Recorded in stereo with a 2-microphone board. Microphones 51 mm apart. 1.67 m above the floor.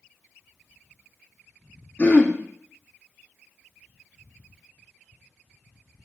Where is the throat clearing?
25° left (ahead or behind), 1.2 m.